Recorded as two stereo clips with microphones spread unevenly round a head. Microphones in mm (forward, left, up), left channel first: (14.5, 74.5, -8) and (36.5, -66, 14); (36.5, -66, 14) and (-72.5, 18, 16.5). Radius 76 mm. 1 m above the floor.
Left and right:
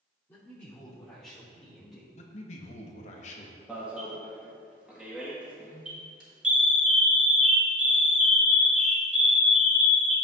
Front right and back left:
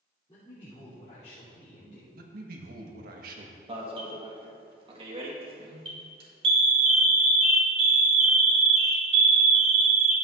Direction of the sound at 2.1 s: 135° left.